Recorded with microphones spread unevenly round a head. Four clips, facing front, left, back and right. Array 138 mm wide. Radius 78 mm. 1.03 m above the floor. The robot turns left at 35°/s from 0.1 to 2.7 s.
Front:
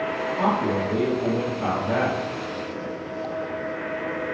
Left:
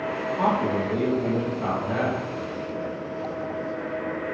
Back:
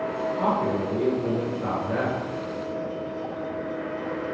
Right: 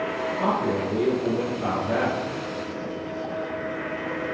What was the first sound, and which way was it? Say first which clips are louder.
A man speaking: left 2 dB, front 2 dB; 50° left.